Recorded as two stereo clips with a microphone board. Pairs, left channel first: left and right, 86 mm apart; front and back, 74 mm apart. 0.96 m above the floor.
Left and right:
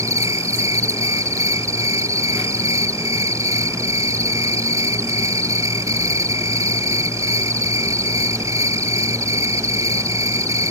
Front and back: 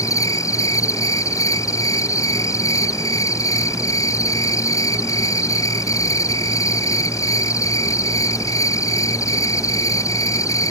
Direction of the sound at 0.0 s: 40° right.